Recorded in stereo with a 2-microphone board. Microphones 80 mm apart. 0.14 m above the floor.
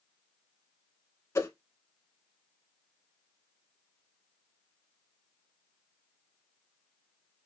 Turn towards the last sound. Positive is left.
turn(degrees=40)  # may be behind; listen again after turning